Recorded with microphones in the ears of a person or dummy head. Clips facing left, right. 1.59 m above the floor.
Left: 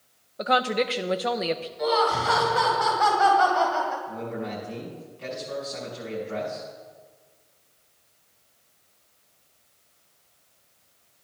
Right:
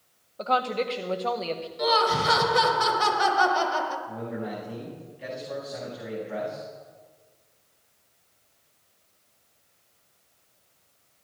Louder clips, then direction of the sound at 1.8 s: Even; 40° right (ahead or behind).